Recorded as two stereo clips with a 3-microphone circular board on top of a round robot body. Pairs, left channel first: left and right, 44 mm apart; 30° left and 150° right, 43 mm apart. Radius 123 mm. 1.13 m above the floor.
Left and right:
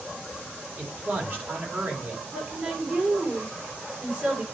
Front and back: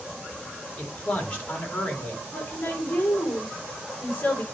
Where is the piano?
I don't hear a piano.